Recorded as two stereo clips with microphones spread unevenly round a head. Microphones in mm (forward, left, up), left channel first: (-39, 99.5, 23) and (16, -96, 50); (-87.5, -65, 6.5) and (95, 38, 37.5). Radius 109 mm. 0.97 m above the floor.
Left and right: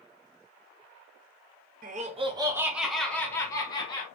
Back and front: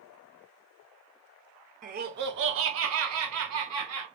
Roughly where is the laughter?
Ahead right.